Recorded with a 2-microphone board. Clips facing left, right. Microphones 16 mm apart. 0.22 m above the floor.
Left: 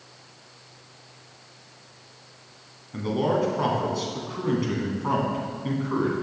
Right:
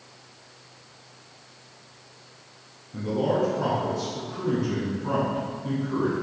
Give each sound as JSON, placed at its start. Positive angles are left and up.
{"t": 2.9, "sound": "a man speaking", "side_deg": 50, "distance_m": 1.8}